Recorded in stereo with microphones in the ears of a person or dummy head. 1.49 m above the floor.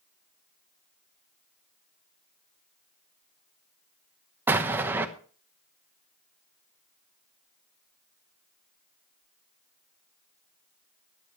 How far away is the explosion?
About 1.1 m.